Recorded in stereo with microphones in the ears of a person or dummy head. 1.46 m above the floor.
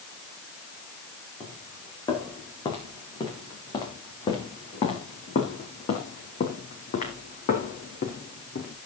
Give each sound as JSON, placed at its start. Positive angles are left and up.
{"t": 1.4, "sound": "footsteps", "side_deg": 15, "distance_m": 6.0}